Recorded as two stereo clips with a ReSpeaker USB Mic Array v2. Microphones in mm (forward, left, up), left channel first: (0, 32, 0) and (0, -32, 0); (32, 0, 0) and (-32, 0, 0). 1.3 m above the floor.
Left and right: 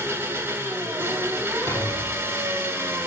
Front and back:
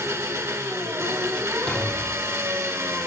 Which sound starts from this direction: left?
A thud, at 1.7 s.